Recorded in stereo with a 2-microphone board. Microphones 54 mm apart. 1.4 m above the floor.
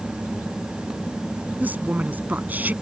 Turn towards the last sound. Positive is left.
turn(degrees=-30)  # may be behind; listen again after turning